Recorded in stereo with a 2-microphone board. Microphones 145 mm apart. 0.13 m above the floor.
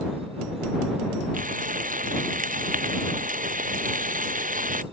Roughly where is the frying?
Right.